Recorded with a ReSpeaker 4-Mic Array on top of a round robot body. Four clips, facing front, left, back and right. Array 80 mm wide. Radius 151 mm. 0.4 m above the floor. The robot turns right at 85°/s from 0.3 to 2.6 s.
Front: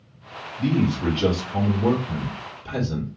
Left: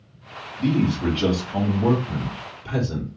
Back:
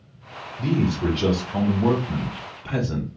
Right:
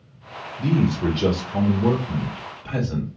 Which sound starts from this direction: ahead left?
A man speaking, at 0.6 s.